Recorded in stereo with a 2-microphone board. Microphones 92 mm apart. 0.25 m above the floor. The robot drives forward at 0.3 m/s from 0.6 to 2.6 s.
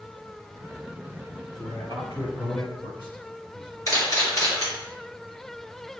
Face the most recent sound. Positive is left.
turn(degrees=40)  # may be behind; listen again after turning